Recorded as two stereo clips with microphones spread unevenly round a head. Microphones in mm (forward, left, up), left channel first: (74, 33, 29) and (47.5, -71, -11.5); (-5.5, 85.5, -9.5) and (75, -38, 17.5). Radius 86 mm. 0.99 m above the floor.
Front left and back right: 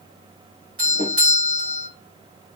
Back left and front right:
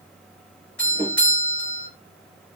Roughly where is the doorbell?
Behind right.